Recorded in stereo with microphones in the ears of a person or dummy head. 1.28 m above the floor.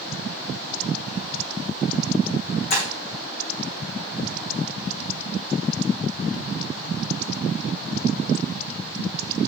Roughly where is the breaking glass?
Left.